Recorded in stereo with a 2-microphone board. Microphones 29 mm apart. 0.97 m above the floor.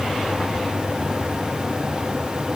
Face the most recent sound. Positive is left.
No sound to turn to.